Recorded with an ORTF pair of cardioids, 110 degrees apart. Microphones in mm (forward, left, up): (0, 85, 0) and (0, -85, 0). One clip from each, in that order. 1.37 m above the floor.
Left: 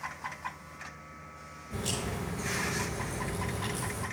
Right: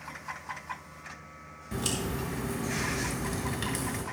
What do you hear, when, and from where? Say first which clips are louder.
1.7 s a crack: right 2 dB; 65° right, 6 m